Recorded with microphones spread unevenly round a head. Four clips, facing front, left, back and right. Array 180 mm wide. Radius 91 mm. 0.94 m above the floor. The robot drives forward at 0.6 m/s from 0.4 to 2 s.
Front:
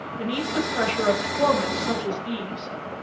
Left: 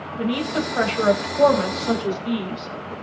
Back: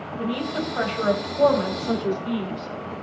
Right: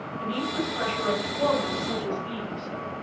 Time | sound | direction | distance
0.2 | a woman speaking | 70° left | 6.5 m